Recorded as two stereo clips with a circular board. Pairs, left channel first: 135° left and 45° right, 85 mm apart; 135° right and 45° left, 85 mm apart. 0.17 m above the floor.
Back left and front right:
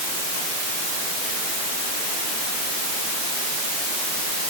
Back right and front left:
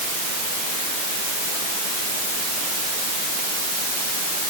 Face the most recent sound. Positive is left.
No sound to turn to.